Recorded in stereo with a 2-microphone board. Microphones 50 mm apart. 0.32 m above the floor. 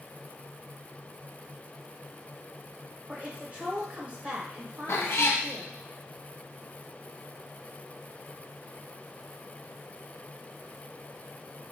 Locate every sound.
3.1 s a woman speaking: 25° right (ahead or behind), 1.0 m
4.9 s a cat meowing: 75° left (ahead or behind), 0.6 m